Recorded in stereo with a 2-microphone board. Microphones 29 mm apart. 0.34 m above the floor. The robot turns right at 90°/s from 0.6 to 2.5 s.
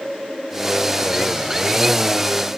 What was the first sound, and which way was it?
Only background noise.